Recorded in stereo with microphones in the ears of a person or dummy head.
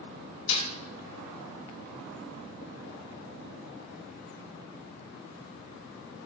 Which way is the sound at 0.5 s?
75° left (ahead or behind).